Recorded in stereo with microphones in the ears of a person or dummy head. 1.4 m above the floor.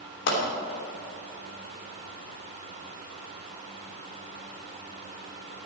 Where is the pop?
70° left (ahead or behind), 3 m.